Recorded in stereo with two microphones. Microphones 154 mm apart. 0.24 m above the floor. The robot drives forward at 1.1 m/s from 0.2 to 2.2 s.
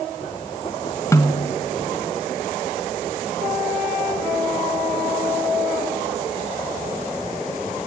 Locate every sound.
1.1 s a snare drum: 20° left (ahead or behind), 1.2 m; by 1.6 s 25° left (ahead or behind), 0.9 m